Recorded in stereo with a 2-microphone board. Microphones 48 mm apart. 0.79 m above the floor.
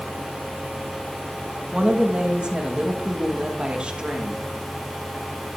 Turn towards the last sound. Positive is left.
turn(degrees=-20)  # may be behind; listen again after turning